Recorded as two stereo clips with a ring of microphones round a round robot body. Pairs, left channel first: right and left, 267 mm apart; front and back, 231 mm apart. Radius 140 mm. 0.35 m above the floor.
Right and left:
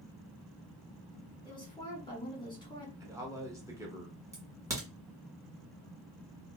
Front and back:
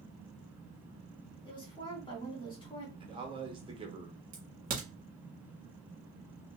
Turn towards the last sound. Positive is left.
turn(degrees=160)